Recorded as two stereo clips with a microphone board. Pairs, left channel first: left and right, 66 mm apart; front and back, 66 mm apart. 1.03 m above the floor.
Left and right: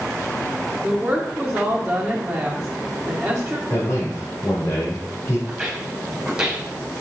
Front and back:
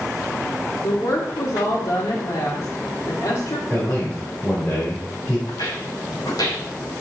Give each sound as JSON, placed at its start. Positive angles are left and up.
{"t": 0.8, "sound": "a woman speaking", "azimuth_deg": -5, "distance_m": 2.0}
{"t": 3.7, "sound": "a man speaking", "azimuth_deg": 60, "distance_m": 4.5}
{"t": 5.5, "sound": "footsteps", "azimuth_deg": -5, "distance_m": 4.5}